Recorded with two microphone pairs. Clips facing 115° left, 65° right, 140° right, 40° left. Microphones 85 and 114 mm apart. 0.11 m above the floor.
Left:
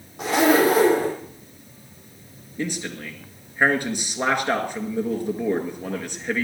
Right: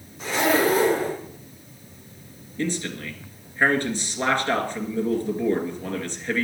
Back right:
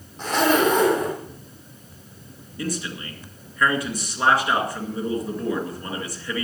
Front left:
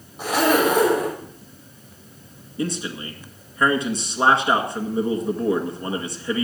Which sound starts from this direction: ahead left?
A man speaking, at 2.6 s.